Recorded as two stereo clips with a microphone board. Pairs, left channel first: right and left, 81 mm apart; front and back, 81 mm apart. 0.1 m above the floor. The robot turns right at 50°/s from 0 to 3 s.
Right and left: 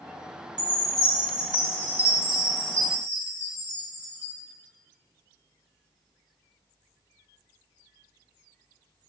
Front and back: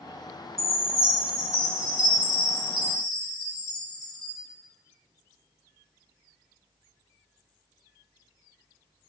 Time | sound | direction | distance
0.6 | a chime | 90° left | 2.5 m